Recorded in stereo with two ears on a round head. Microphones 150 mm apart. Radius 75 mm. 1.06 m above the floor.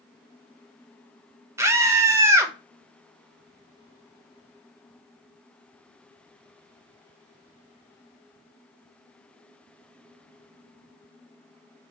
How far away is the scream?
About 0.6 m.